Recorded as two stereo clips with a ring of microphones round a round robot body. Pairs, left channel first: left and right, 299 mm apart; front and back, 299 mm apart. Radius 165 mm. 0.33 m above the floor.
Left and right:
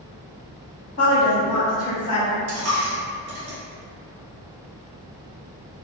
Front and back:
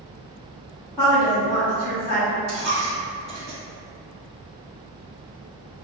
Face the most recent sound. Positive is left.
turn(degrees=-110)